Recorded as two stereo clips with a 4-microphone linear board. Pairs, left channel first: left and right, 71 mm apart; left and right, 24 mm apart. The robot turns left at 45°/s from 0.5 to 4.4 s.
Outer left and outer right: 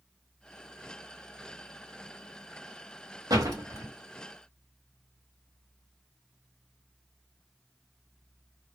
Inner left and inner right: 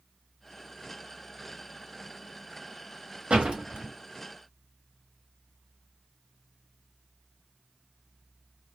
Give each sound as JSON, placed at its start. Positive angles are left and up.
{"t": 3.3, "sound": "a door slam", "side_deg": -65, "distance_m": 0.9}